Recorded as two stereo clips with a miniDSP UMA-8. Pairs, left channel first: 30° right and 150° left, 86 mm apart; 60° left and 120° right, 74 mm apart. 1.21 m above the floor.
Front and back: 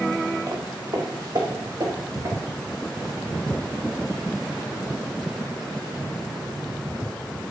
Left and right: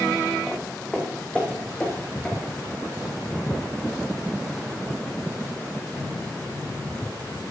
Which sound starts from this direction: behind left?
Footsteps, at 0.5 s.